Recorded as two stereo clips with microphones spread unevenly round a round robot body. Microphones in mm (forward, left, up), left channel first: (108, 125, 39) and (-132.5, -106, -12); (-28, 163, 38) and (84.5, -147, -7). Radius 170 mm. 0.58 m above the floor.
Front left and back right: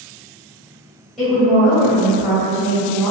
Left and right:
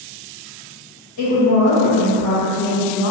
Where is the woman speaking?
140° left, 1.4 m.